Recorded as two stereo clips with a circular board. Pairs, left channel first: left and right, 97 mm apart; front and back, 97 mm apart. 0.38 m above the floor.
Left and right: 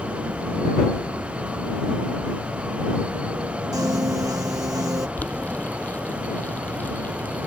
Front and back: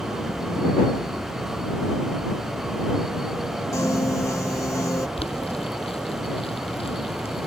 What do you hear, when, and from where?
3.7 s a piano: 50° right
5.2 s boiling: 15° left